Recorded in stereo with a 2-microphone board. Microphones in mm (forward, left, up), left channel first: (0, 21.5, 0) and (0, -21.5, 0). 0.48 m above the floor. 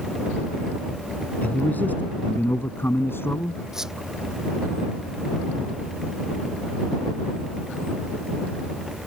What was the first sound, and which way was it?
A man speaking, 35° left (ahead or behind).